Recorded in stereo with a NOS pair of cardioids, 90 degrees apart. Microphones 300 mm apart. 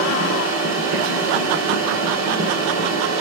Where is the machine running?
65° right, 2 m.